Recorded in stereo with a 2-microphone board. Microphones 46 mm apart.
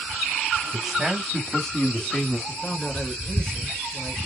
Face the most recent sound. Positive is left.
turn(degrees=15)  # may be behind; listen again after turning